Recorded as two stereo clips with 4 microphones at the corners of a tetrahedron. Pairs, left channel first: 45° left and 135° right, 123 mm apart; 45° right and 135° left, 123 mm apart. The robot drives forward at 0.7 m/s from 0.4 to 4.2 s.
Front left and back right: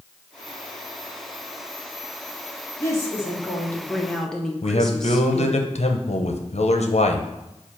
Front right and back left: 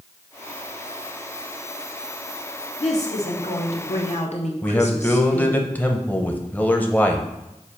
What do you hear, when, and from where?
2.8 s a woman speaking: 20° right, 1.9 m; by 5.6 s 40° right, 1.1 m
4.6 s a man speaking: 30° left, 0.8 m